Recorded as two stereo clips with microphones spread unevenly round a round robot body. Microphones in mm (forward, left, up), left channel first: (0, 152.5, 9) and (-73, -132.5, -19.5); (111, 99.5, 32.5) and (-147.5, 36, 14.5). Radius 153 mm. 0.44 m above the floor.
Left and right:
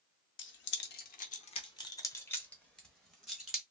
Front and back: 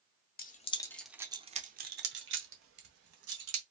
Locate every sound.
0.4 s keys jangling: 45° left, 0.6 m; by 3.6 s 170° left, 1.5 m